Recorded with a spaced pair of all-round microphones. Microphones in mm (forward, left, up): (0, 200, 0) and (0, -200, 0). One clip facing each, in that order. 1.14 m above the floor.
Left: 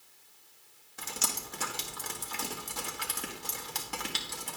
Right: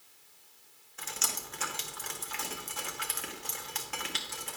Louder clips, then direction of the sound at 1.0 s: Left 2 dB; 55° left (ahead or behind).